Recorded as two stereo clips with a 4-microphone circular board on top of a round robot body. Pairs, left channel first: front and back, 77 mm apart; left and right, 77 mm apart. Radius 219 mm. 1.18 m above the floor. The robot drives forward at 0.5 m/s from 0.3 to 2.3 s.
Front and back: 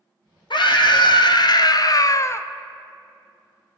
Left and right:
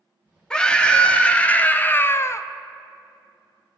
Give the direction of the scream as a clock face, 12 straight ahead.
12 o'clock.